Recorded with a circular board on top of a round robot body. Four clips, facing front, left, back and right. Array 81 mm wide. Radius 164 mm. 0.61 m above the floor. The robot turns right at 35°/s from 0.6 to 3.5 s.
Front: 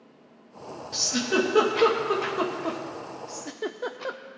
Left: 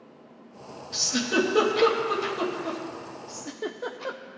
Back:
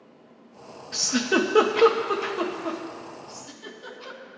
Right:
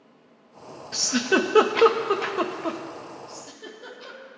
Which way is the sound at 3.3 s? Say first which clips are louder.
Left 6 dB, front 8 dB; 25° left.